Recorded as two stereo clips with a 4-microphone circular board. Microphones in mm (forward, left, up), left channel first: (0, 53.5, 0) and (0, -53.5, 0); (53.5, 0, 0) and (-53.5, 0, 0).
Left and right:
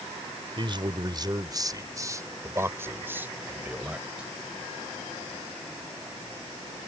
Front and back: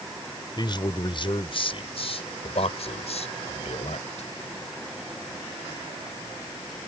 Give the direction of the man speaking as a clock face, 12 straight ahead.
2 o'clock.